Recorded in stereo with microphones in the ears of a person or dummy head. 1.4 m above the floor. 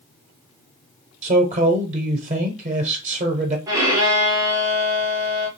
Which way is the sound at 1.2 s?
40° right (ahead or behind).